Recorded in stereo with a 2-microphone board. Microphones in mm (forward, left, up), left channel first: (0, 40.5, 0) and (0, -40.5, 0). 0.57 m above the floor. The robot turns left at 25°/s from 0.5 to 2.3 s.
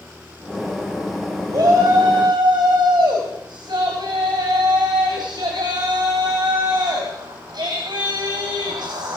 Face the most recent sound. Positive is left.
turn(degrees=-70)  # may be behind; listen again after turning